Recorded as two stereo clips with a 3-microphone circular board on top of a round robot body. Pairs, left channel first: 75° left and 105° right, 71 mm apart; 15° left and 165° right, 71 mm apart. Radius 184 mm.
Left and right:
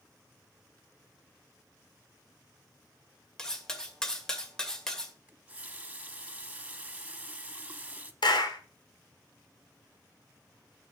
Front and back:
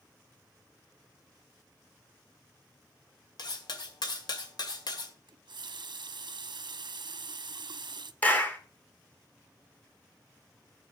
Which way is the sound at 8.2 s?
85° left.